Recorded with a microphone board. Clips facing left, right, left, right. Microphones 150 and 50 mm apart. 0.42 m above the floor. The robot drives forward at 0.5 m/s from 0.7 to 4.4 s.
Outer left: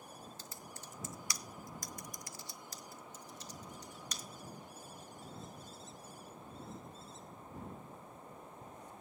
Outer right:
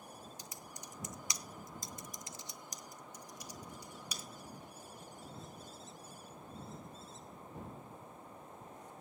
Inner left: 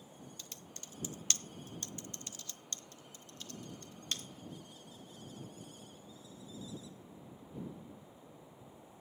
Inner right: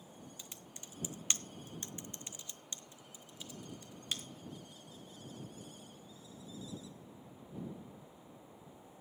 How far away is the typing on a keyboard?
About 0.8 m.